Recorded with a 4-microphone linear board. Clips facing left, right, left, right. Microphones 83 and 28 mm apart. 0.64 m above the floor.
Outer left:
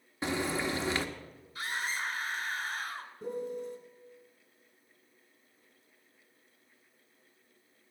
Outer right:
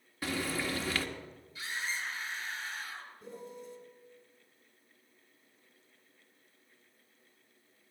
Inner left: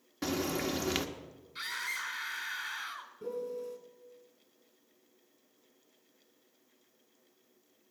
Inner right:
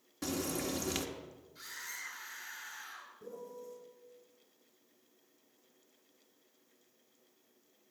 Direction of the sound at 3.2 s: 55° left (ahead or behind).